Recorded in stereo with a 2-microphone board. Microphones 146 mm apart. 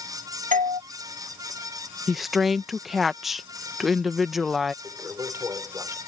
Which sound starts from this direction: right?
A doorbell, at 0.5 s.